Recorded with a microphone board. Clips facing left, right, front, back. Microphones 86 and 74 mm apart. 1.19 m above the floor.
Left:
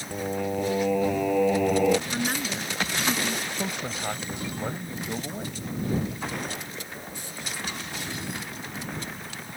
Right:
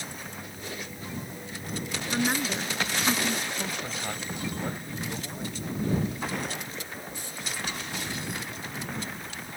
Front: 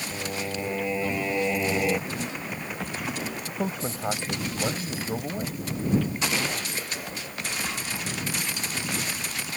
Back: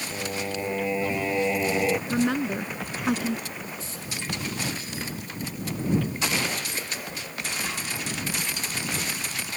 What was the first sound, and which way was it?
Singing, 100° left.